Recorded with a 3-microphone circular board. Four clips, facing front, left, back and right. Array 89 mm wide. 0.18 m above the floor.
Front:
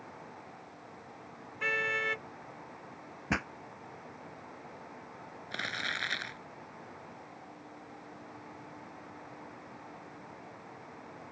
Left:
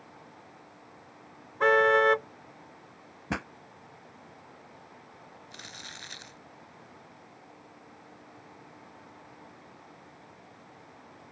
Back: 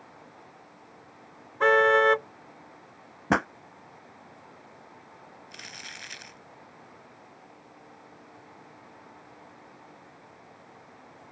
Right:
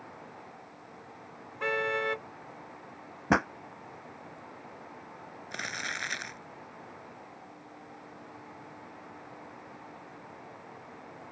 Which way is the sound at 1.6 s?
150° left.